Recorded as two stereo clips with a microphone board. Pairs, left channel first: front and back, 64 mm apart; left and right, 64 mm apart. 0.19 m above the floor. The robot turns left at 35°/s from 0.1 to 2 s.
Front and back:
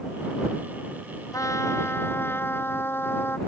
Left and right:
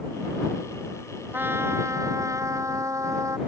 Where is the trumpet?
30° right; by 3.4 s 55° right.